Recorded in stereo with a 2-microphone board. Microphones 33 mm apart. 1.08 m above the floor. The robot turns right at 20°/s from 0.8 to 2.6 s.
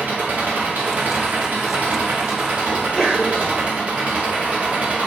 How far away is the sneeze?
About 3.5 m.